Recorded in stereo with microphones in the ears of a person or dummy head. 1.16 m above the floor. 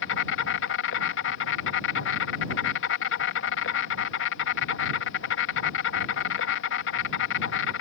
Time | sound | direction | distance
0.0 | an insect | 65° left (ahead or behind) | ?